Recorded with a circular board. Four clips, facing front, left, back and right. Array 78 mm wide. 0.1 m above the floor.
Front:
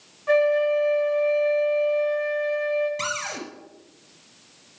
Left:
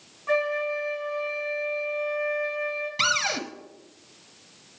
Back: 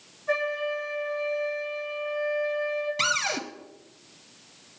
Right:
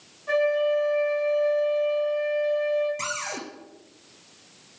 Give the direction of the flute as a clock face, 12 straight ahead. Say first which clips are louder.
Right 4 dB, front 9 dB; 12 o'clock.